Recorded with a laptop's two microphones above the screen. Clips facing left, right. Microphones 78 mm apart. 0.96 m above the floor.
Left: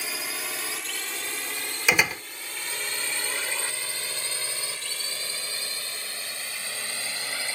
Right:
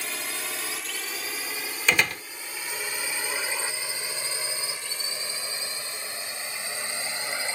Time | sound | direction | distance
0.0 | a drone | 5° left (ahead or behind) | ?
1.9 | a door slam | 10° left (ahead or behind) | ?